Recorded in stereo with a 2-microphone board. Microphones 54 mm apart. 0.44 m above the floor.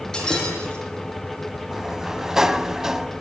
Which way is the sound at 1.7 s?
10° right (ahead or behind).